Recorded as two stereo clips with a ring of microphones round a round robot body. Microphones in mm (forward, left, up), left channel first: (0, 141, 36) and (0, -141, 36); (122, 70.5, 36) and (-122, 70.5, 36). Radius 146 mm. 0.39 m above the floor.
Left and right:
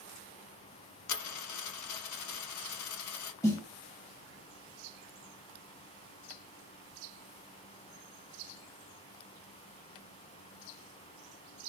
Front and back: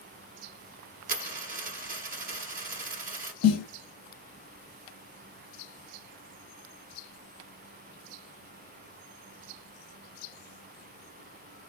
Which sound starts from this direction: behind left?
A dropped coin, at 1.1 s.